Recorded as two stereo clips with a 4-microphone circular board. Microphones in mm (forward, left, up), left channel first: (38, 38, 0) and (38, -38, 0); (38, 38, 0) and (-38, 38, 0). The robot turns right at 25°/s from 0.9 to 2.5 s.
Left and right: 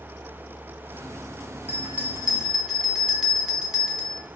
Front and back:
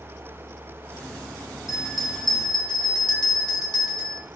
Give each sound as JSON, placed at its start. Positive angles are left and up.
{"t": 1.7, "sound": "a bell", "azimuth_deg": -20, "distance_m": 2.5}